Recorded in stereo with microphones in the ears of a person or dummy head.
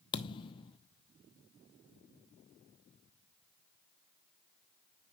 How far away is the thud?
About 0.8 m.